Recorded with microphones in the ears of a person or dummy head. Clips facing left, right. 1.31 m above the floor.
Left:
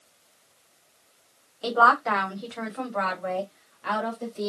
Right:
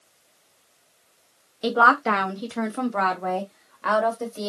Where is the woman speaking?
20° right (ahead or behind), 0.9 m; by 4.5 s 60° right (ahead or behind), 2.5 m.